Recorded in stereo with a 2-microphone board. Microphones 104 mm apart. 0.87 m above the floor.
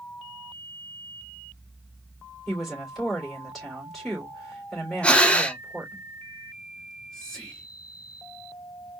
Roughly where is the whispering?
Centre.